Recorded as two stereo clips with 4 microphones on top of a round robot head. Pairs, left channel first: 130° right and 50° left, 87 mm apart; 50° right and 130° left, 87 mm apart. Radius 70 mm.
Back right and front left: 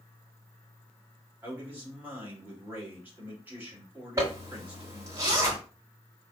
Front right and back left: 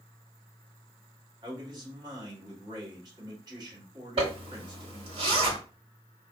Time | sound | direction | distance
1.4 | a man speaking | 115° left | 1.7 m
4.2 | a zipper | 110° left | 1.2 m